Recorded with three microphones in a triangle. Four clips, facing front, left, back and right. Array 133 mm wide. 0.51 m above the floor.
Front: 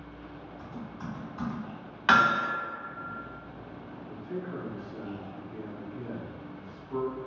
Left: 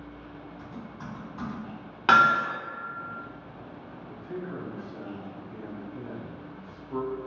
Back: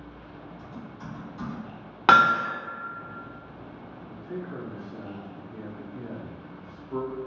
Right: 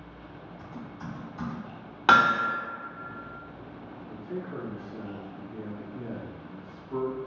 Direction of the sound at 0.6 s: 60° left.